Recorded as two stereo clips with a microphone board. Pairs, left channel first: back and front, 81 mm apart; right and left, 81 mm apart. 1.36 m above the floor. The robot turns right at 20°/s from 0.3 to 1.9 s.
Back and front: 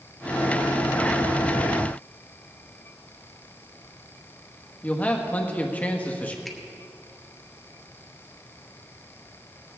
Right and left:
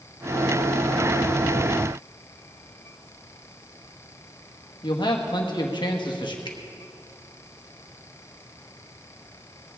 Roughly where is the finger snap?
Right.